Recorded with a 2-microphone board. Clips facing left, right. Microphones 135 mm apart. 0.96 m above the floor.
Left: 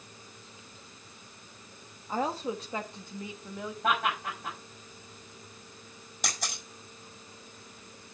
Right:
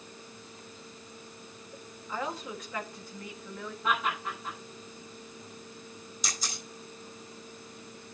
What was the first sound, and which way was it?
A woman speaking, 40° left (ahead or behind).